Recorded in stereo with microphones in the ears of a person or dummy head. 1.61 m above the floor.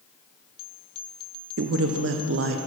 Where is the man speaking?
70° right (ahead or behind), 0.5 m.